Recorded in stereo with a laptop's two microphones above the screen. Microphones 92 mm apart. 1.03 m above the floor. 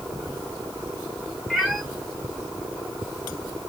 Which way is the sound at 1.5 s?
5° right (ahead or behind).